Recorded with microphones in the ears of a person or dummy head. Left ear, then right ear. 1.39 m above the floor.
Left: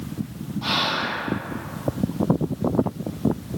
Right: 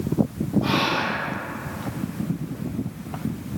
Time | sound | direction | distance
0.6 | whispering | 60° left (ahead or behind) | 1.6 m